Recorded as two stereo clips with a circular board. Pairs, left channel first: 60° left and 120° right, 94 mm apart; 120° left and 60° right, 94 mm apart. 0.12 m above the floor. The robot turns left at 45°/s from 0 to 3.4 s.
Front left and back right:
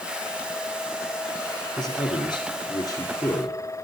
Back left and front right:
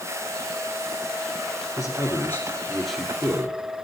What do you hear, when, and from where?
1.8 s a man speaking: 85° left, 1.8 m; by 3.6 s 10° left, 1.8 m